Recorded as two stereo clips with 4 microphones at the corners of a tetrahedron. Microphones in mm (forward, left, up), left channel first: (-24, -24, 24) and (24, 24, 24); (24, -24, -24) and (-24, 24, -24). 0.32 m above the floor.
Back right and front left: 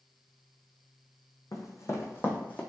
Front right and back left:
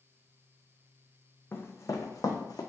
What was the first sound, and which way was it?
Running footsteps, 100° right.